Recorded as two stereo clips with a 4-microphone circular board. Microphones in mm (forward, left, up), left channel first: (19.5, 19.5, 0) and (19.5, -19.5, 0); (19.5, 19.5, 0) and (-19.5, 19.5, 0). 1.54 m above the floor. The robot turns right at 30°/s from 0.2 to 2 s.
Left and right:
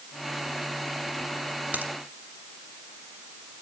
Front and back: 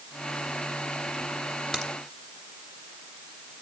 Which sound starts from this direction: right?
A crack, at 1.7 s.